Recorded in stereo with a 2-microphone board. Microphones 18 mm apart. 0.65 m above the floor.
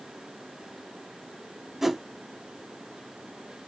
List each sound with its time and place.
1.8 s a whoosh: 20° right (ahead or behind), 0.6 m